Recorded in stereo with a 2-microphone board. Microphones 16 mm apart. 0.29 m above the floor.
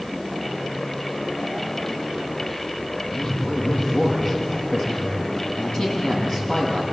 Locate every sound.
3.1 s a man speaking: 55° left (ahead or behind), 8 m